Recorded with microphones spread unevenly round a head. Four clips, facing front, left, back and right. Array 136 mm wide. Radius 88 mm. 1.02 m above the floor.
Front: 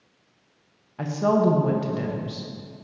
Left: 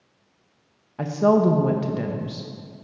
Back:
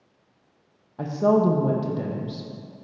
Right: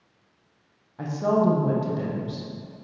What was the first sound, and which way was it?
A woman speaking, 55° left.